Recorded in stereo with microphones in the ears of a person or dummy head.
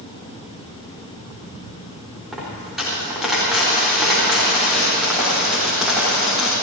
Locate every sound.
2.3 s a dropped coin: 5° right (ahead or behind), 4 m